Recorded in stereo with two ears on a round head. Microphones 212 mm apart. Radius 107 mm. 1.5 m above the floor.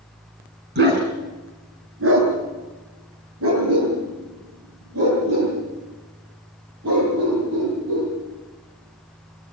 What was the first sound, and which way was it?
A dog barking, 50° right (ahead or behind).